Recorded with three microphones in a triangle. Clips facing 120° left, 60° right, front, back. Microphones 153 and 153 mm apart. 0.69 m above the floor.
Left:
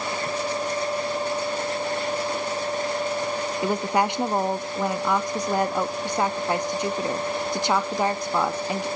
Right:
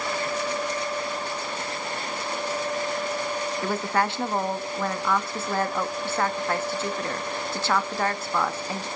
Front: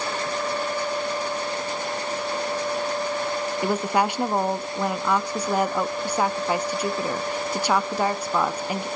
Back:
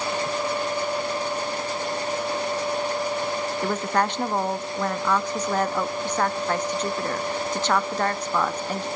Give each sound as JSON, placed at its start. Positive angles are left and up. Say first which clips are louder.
{"t": 3.6, "sound": "a woman speaking", "louder": "left 3 dB, front 2 dB", "azimuth_deg": 70, "distance_m": 0.5}